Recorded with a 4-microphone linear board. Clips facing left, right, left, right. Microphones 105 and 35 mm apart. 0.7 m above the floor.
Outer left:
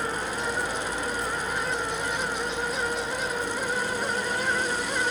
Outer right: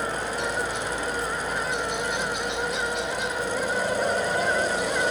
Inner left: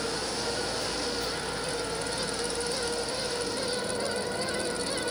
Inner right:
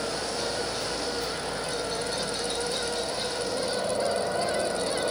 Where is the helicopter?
65° right (ahead or behind).